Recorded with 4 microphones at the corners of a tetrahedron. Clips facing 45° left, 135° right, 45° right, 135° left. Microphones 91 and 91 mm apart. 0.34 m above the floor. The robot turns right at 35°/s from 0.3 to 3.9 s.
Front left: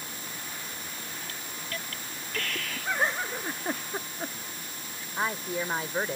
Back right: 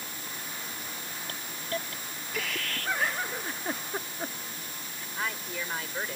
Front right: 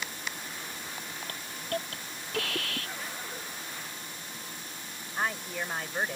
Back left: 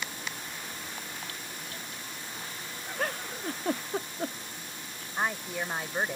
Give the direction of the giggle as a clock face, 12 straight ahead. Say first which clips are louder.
Front left 2 dB, back left 6 dB; 9 o'clock.